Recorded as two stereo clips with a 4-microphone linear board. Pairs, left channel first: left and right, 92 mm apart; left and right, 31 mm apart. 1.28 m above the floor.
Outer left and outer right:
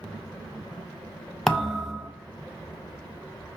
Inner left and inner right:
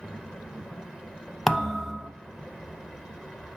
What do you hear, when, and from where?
1.5 s a thud: 5° left (ahead or behind), 0.6 m